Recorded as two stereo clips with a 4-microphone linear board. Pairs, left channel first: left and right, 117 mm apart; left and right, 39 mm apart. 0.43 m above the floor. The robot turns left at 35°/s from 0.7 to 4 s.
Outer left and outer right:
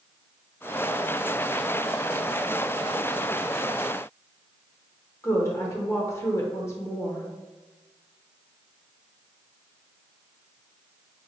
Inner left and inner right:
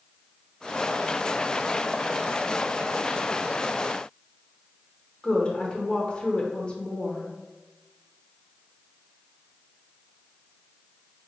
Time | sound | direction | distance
5.2 | a woman speaking | 25° left (ahead or behind) | 0.8 m